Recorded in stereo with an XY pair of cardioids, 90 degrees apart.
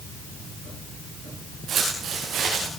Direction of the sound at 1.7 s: 70° right.